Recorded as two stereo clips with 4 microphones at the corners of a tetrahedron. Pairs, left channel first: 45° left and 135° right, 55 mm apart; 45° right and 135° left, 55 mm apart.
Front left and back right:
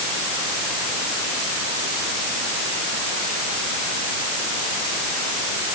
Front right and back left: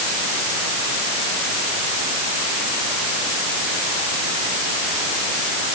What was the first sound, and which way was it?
Only background noise.